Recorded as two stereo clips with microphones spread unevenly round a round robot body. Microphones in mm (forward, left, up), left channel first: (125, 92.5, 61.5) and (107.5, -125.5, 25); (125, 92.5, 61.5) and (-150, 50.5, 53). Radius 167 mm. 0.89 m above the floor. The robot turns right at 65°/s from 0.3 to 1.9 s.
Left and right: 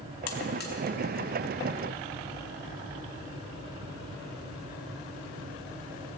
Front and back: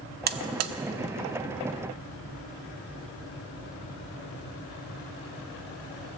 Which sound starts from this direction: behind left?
A buzzer, at 0.3 s.